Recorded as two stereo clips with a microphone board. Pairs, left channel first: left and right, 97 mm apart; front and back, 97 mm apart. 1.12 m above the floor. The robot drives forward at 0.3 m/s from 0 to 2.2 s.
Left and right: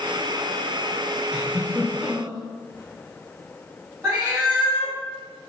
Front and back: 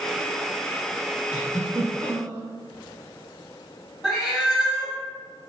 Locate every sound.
1.3 s a giggle: 155° right, 0.8 m; by 2.4 s 165° right, 0.9 m
4.0 s a cat meowing: 105° right, 1.0 m